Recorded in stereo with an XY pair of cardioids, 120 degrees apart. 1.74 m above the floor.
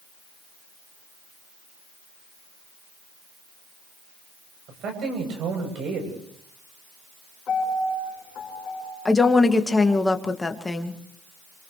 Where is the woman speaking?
15° left, 2.5 m.